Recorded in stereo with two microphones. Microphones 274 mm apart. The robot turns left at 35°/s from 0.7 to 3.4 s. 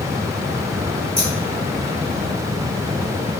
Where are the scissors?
15° left (ahead or behind), 1.5 m; by 1.3 s 20° left (ahead or behind), 1.5 m.